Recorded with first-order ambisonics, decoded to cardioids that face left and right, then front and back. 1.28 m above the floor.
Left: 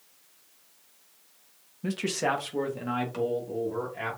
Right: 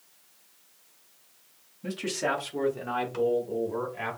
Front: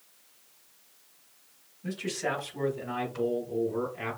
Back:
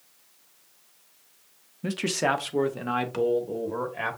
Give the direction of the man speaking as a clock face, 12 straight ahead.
7 o'clock.